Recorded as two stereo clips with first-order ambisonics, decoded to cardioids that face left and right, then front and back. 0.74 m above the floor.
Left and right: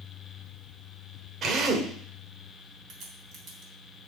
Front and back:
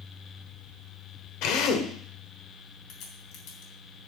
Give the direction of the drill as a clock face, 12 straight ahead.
1 o'clock.